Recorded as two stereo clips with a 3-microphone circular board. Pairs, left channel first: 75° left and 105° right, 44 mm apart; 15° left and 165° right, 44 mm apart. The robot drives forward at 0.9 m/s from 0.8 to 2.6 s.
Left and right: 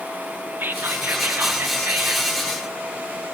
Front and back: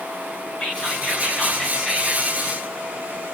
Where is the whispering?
60° right, 5 m; by 2.3 s 75° right, 4.5 m.